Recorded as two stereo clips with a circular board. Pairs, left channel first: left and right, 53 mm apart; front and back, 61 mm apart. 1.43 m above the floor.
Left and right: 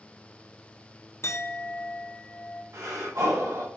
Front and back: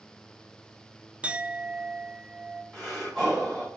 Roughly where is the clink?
Left.